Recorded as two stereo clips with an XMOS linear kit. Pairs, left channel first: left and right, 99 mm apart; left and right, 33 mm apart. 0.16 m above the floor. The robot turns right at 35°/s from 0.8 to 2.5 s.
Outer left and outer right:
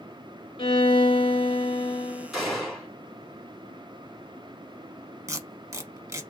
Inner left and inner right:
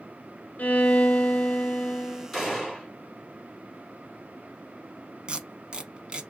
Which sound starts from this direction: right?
Tape being pulled, at 5.3 s.